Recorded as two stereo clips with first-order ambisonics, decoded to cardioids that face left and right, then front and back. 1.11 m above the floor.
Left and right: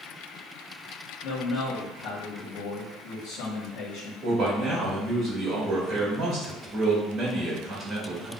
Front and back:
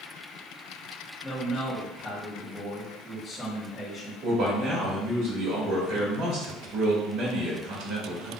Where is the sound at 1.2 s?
95° left, 1.0 m.